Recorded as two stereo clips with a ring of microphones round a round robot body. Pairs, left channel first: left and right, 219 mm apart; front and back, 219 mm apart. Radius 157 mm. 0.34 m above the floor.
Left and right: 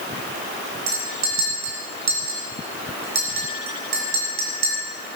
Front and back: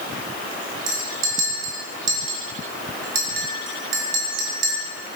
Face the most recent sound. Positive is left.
turn(degrees=-140)